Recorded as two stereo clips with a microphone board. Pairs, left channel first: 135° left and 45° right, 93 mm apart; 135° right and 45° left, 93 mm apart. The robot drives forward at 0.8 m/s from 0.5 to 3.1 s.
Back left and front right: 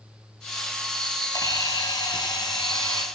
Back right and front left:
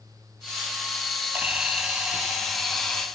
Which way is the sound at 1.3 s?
115° left.